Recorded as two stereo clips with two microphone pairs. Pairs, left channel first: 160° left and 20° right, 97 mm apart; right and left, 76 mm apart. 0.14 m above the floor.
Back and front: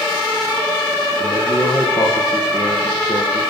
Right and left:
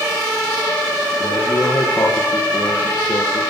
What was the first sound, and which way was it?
A man speaking, 150° right.